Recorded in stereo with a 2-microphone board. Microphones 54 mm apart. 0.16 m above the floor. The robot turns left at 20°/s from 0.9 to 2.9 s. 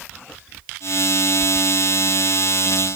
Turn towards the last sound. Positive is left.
No sound to turn to.